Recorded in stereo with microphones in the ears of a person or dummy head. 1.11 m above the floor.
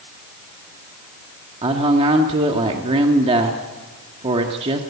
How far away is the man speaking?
About 1.8 m.